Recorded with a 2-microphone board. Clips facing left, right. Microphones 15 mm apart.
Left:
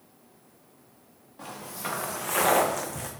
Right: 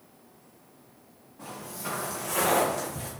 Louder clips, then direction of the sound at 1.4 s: Left 1 dB; 60° left (ahead or behind).